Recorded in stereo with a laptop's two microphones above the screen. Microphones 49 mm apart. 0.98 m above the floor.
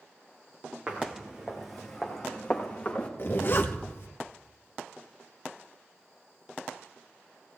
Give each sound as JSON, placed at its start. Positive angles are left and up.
{"t": 0.9, "sound": "footsteps", "side_deg": -25, "distance_m": 3.5}
{"t": 3.2, "sound": "a zipper", "side_deg": 45, "distance_m": 1.2}